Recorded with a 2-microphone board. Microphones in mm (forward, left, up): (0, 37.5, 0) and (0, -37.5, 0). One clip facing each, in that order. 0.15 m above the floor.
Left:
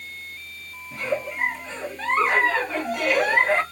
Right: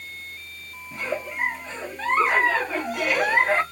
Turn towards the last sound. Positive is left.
turn(degrees=0)  # may be behind; listen again after turning